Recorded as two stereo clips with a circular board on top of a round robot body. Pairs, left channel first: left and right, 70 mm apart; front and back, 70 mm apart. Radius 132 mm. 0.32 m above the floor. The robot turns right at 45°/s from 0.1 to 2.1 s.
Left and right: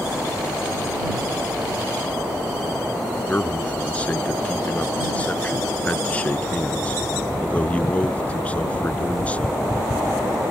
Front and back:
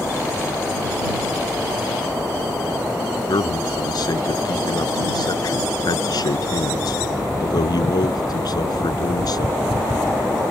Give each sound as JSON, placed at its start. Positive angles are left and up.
{"t": 3.3, "sound": "a man speaking", "azimuth_deg": 20}